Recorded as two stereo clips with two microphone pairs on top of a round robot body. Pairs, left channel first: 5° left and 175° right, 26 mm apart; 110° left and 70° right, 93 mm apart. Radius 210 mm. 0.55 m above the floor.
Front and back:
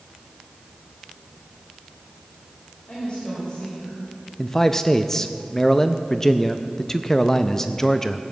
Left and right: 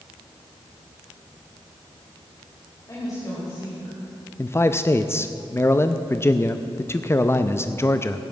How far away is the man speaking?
About 0.8 m.